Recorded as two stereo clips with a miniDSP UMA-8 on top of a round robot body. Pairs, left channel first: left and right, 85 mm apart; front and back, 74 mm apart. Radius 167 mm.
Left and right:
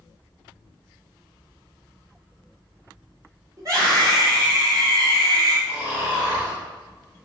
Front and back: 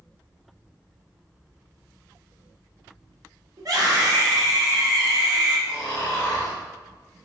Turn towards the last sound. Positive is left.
turn(degrees=50)